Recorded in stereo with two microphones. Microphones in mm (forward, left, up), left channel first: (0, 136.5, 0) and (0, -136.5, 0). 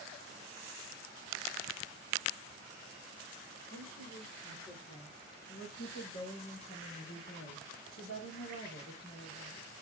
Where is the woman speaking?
55° left (ahead or behind), 6 m; by 9.6 s 20° left (ahead or behind), 4 m.